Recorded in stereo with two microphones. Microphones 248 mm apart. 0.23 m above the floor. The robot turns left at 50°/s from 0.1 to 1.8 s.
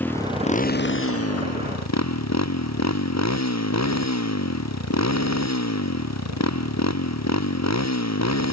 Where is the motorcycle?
175° left; by 8.5 s 90° left.